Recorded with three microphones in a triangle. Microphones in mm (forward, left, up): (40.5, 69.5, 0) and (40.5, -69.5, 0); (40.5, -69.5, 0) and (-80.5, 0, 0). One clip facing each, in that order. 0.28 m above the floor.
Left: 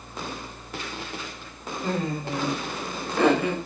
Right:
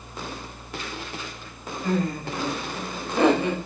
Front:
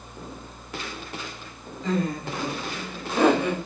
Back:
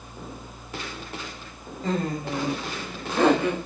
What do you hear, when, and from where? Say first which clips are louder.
1.8 s laughter: right 2 dB, front 1 dB; 130° left, 1.4 m; by 3.5 s 70° right, 1.2 m